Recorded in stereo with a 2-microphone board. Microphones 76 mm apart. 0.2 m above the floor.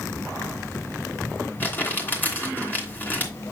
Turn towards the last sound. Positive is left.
turn(degrees=25)  # may be behind; listen again after turning